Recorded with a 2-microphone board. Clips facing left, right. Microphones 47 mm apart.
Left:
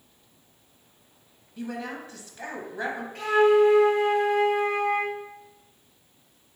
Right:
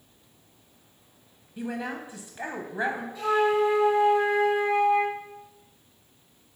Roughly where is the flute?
Left.